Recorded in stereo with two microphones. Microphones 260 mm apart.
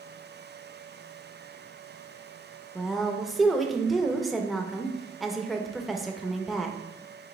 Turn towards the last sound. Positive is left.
turn(degrees=0)  # may be behind; listen again after turning